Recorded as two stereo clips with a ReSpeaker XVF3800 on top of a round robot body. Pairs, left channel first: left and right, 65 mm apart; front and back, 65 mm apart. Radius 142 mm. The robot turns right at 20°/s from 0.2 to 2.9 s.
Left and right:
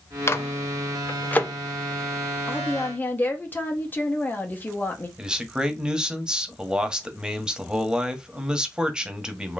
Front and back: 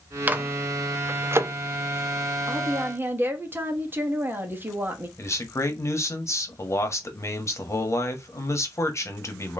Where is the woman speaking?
130° left, 1.4 m; by 5.1 s 140° left, 1.4 m.